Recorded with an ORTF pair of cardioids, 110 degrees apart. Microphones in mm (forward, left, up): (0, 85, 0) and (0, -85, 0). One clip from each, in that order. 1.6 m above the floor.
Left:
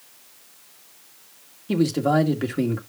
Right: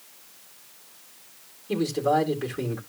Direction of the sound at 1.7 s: 45° left.